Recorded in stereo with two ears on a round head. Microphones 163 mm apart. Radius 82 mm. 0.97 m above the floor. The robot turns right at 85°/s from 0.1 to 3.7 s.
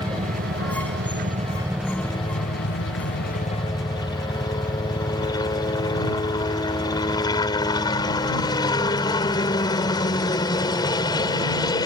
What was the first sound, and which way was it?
A helicopter, 150° right.